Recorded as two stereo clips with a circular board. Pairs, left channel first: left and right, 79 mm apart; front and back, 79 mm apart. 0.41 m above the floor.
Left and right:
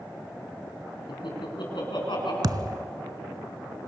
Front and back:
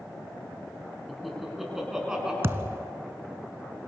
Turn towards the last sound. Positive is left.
turn(degrees=-125)